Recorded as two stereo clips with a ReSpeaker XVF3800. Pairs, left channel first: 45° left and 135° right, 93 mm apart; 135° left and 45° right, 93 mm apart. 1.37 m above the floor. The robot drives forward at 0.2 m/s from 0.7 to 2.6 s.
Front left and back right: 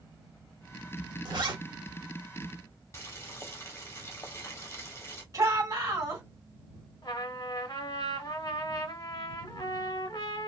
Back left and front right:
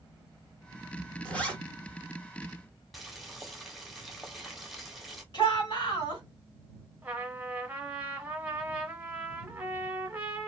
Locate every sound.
1.2 s a zipper: 150° right, 1.0 m; by 1.6 s 155° right, 1.0 m
2.9 s boiling: 45° left, 0.9 m
5.3 s a shout: 175° left, 1.6 m
7.0 s a trumpet: 25° left, 0.7 m